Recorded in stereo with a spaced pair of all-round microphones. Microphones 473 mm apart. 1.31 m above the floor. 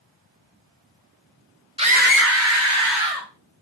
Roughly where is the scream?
Centre.